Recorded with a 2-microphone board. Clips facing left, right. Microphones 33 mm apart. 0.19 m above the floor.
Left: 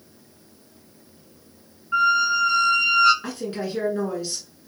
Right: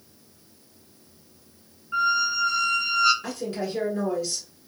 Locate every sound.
1.9 s a squeak: 30° left (ahead or behind), 1.8 m
3.2 s a woman speaking: 20° left (ahead or behind), 2.0 m